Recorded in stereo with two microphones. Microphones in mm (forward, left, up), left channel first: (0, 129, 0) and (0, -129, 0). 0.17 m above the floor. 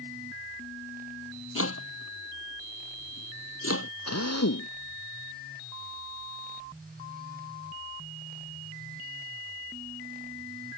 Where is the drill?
75° left (ahead or behind).